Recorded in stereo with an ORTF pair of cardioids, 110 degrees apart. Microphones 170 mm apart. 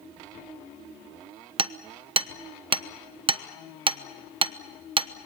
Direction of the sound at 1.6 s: 30° right.